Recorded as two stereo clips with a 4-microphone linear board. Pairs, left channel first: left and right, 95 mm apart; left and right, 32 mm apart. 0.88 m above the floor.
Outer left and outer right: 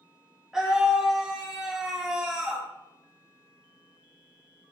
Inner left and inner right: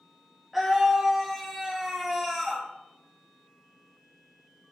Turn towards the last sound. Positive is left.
turn(degrees=-5)  # may be behind; listen again after turning